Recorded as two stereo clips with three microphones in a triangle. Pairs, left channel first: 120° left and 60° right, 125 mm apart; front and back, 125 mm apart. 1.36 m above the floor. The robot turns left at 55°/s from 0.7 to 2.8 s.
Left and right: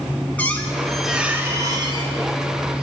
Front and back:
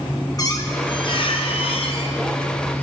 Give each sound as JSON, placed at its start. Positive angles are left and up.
{"t": 0.4, "sound": "a squeak", "azimuth_deg": 45, "distance_m": 0.8}